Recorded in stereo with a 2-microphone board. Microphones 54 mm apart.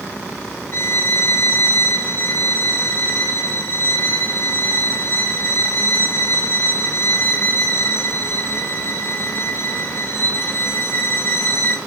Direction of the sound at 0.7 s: 45° left (ahead or behind).